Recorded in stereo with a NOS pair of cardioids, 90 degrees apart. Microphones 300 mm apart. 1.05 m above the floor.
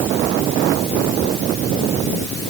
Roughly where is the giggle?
No giggle in this recording.